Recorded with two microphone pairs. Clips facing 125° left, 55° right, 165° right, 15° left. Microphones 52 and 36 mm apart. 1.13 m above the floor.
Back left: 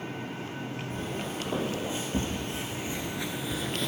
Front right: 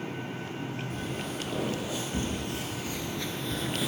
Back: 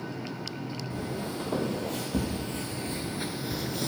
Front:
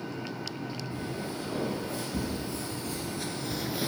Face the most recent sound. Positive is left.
turn(degrees=15)